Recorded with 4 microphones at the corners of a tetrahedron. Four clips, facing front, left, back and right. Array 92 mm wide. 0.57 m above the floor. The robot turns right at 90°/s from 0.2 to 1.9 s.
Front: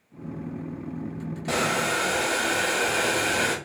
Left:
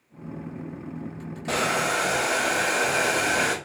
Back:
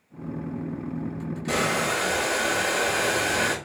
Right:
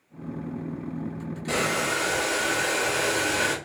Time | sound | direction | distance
1.5 | boiling | 35° left | 2.5 m